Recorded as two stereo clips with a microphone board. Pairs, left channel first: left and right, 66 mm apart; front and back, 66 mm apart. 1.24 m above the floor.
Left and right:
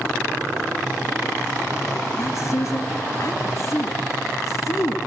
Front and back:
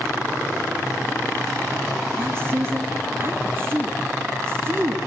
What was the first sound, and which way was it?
A woman speaking, 130° left.